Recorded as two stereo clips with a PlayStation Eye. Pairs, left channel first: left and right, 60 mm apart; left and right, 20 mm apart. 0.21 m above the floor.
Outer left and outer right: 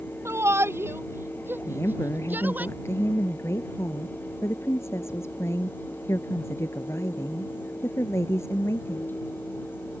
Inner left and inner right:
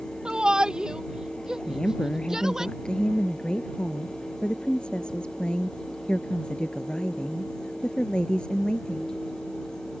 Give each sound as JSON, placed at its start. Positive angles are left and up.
{"t": 0.2, "sound": "a shout", "side_deg": -45}
{"t": 1.7, "sound": "a woman speaking", "side_deg": 45}